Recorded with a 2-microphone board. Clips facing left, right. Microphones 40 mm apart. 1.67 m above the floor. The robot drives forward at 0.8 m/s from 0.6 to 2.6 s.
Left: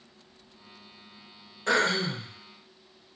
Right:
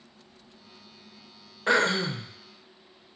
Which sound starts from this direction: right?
Throat clearing, at 1.7 s.